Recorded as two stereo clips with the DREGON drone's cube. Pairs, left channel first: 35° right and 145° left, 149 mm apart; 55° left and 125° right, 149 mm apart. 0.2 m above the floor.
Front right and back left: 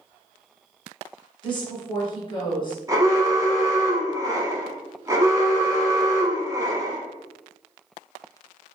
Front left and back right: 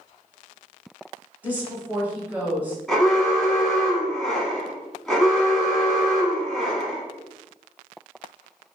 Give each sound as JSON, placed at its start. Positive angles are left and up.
{"t": 1.4, "sound": "a woman speaking", "azimuth_deg": -55, "distance_m": 1.8}
{"t": 2.9, "sound": "an alarm", "azimuth_deg": 140, "distance_m": 1.3}